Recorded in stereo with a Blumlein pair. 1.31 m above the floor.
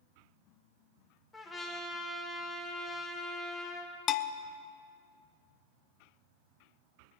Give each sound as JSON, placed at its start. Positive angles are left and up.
{"t": 1.3, "sound": "a trumpet", "azimuth_deg": 15, "distance_m": 2.0}
{"t": 4.1, "sound": "a bell", "azimuth_deg": 30, "distance_m": 0.6}